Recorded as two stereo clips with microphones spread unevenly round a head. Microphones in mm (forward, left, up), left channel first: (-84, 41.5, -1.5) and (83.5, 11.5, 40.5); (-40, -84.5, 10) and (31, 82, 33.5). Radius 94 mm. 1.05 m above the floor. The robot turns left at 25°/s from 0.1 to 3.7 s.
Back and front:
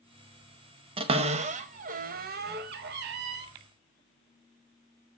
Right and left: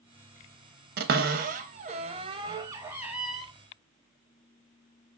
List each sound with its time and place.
1.0 s a cupboard door: 40° left, 0.5 m; by 3.5 s 20° right, 0.5 m